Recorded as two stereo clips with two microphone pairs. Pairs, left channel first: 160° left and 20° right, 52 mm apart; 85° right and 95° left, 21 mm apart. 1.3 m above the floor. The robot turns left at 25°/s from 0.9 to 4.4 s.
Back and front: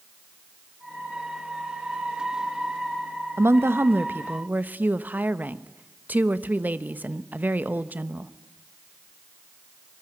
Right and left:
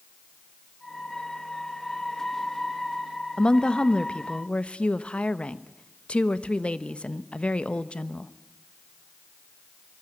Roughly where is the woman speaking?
Ahead right.